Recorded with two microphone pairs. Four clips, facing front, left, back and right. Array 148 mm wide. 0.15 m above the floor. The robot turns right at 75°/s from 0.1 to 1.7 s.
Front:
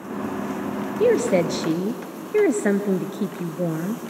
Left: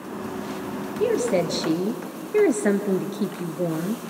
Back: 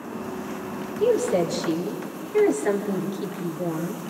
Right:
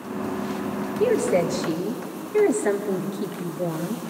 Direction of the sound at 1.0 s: 15° right.